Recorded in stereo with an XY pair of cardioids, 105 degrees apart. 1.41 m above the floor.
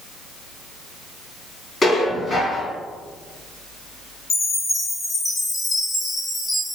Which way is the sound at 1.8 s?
30° left.